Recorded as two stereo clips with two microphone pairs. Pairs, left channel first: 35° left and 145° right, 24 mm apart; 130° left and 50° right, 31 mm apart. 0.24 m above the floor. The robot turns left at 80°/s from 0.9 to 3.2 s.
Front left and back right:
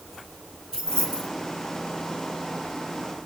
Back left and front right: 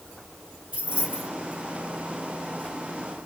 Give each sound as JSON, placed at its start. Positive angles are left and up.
{"t": 0.7, "sound": "keys jangling", "azimuth_deg": -95, "distance_m": 2.0}